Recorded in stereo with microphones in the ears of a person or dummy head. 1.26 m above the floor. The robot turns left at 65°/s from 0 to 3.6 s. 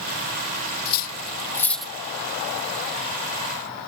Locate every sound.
0.8 s cutlery clinking: 65° left (ahead or behind); by 1.9 s 5° right (ahead or behind)